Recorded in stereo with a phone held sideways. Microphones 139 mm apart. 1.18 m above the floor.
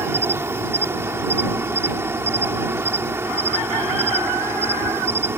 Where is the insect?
20° right (ahead or behind).